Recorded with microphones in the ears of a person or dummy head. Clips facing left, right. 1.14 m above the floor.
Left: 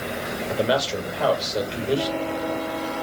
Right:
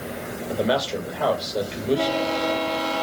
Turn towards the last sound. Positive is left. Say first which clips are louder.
# even
turn(degrees=-5)  # may be behind; listen again after turning